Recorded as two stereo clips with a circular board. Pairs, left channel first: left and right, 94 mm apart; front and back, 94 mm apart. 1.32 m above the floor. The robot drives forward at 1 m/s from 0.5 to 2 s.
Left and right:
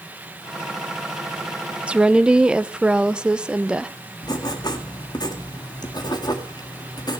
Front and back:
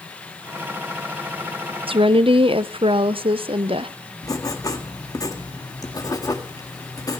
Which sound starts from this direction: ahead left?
Writing, at 4.2 s.